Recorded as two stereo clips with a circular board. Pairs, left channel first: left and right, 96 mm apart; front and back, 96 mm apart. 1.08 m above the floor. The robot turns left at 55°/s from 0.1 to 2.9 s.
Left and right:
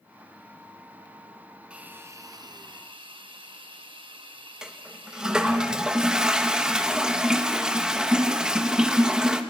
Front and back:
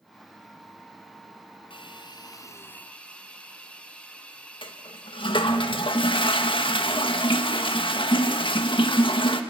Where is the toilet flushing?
10° right, 1.5 m.